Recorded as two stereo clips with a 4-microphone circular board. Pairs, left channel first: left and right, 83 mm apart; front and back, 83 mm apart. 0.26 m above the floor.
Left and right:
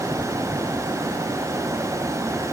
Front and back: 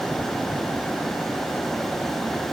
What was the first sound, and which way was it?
Only background noise.